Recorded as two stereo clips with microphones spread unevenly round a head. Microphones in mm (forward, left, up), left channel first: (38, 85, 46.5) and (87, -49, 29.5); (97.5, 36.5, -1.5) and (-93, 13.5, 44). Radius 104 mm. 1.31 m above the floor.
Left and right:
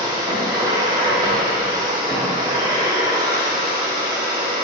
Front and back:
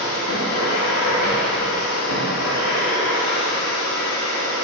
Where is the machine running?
10° right, 1.5 m.